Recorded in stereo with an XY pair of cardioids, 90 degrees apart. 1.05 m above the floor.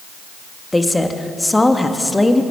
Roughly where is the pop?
I don't hear a pop.